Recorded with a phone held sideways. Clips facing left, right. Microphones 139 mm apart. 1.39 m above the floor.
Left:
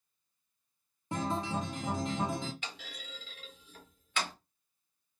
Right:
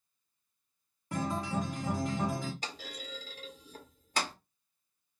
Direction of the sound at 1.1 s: 20° left (ahead or behind).